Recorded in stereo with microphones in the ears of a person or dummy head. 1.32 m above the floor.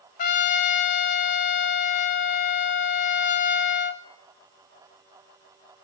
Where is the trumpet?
40° left (ahead or behind), 0.6 m.